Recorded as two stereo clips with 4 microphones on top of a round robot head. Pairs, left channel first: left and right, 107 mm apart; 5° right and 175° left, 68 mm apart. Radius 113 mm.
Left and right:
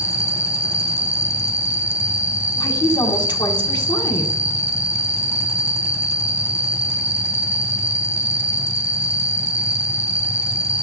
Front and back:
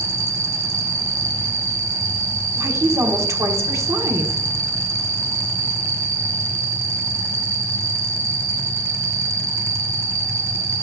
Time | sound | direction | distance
0.0 | an insect | 160° right | 1.7 m
2.6 | a woman speaking | 140° left | 1.5 m